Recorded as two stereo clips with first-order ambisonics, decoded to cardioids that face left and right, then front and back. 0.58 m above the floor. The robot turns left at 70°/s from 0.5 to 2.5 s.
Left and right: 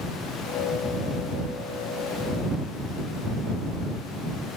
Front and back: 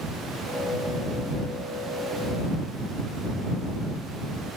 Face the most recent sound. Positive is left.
No sound to turn to.